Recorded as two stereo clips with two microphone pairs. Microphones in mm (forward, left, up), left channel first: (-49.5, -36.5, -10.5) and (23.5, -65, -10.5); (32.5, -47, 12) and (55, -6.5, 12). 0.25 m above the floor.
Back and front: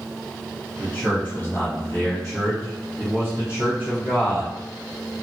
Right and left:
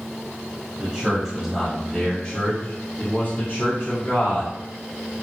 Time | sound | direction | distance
0.8 | a man speaking | 100° left | 1.2 m